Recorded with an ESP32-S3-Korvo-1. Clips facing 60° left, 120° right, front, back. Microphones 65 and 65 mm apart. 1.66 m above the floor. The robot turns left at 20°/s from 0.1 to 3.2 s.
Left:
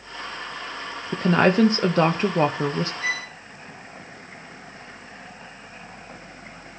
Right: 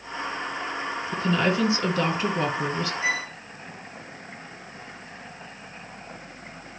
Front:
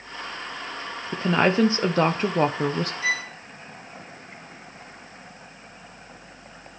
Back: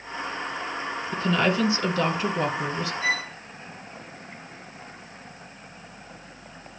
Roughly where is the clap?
I don't hear a clap.